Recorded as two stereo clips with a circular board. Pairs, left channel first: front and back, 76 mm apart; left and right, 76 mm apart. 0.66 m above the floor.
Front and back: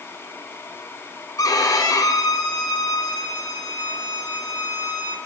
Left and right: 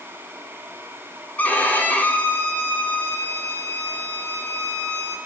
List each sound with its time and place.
1.4 s a violin: 25° left, 1.7 m